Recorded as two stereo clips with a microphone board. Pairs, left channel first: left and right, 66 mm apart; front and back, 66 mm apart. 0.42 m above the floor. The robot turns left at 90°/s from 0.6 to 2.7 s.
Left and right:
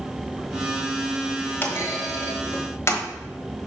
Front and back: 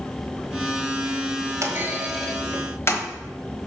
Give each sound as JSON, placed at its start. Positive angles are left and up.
{"t": 1.6, "sound": "a clunk", "azimuth_deg": 145, "distance_m": 1.2}